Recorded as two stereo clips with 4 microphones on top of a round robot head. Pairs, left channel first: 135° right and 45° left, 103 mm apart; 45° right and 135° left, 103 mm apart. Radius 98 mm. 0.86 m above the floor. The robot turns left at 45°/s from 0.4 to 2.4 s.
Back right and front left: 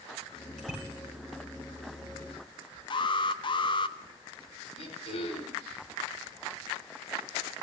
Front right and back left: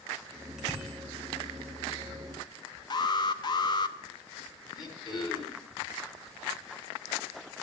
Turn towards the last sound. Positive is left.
turn(degrees=-100)